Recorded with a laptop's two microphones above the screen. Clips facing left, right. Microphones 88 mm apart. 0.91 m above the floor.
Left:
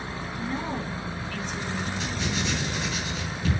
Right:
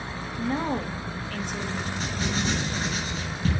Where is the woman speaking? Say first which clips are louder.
Right 5 dB; 60° right (ahead or behind), 1.2 m.